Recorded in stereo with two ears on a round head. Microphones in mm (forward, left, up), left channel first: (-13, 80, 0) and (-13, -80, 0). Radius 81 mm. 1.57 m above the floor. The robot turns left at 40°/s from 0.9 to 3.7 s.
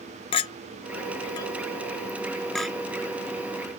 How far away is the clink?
About 0.6 m.